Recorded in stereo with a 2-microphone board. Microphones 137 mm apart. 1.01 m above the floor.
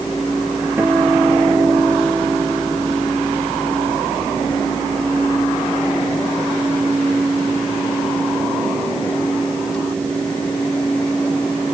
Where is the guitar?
15° right (ahead or behind).